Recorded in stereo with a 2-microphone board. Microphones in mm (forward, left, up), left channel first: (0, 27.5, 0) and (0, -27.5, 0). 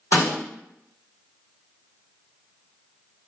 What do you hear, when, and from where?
0.1 s a snare drum: 60° left (ahead or behind), 1.4 m